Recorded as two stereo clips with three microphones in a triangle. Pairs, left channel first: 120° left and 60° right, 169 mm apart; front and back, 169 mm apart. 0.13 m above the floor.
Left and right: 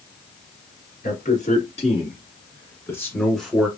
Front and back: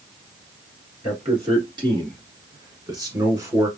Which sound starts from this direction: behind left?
A man speaking, at 1.0 s.